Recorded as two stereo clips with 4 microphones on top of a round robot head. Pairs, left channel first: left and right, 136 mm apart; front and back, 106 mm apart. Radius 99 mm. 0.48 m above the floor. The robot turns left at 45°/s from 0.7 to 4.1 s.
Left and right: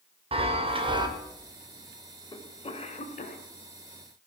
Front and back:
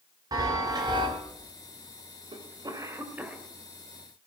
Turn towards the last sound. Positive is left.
turn(degrees=65)